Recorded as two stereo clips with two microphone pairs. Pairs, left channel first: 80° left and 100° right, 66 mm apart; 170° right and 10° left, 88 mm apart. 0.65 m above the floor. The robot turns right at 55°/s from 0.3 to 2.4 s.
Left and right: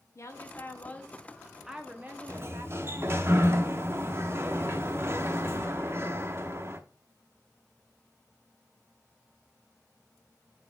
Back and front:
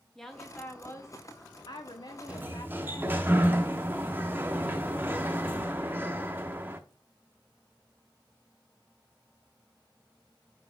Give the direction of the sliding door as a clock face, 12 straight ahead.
2 o'clock.